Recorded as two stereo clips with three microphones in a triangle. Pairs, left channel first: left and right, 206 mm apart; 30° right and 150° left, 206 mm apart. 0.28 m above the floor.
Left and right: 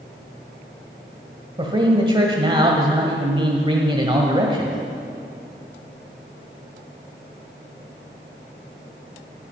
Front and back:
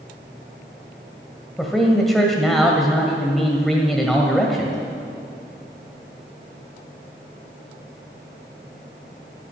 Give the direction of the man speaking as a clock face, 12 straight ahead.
4 o'clock.